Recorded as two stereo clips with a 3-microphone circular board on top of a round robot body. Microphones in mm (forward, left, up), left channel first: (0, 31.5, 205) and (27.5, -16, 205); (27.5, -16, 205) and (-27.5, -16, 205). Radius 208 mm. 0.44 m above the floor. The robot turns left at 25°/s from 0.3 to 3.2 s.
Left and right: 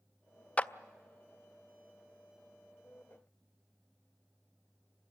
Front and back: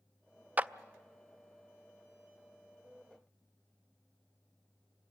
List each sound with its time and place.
0.6 s a clap: 155° left, 0.7 m